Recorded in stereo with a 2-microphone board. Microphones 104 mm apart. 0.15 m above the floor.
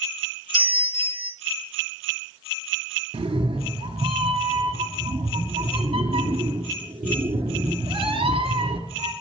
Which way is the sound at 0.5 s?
15° right (ahead or behind).